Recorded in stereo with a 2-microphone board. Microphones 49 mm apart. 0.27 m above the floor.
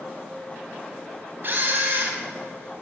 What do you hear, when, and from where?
1.4 s a camera shutter: 45° right (ahead or behind), 1.7 m